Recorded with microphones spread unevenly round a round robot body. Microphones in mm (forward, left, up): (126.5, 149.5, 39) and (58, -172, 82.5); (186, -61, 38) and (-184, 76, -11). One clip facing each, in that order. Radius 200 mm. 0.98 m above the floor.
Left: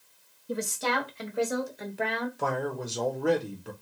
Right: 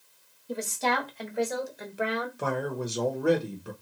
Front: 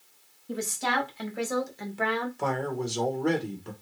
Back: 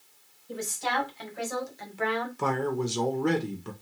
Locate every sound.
0.5 s a woman speaking: 10° left, 1.7 m; by 2.3 s 25° right, 0.9 m
2.4 s a man speaking: 155° left, 0.7 m